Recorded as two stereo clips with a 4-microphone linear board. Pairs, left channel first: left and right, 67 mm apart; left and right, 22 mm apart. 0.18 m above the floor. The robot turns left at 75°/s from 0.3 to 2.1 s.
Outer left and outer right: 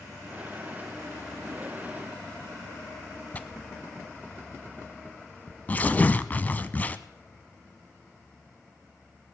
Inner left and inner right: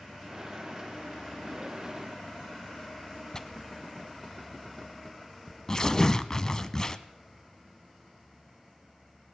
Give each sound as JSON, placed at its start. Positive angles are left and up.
{"t": 3.3, "sound": "tearing paper", "side_deg": 25, "distance_m": 0.6}